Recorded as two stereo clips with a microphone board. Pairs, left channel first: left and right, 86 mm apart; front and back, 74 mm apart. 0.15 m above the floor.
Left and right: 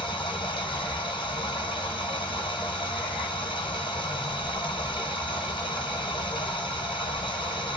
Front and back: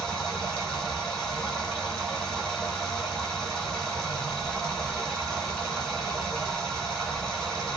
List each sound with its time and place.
0.0 s running water: 80° left, 1.6 m